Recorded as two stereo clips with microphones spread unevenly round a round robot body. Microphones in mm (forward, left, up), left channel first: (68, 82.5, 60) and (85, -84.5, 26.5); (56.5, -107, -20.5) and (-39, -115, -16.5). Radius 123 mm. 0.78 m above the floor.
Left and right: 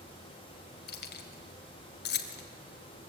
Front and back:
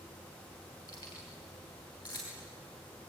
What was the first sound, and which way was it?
Keys jangling, 75° left.